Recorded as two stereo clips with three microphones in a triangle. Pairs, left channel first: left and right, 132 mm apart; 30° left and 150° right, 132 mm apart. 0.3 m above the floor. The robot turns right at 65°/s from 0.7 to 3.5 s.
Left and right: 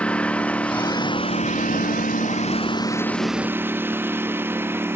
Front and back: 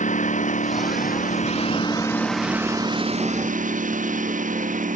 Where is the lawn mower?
10° left; by 5.0 s 165° right.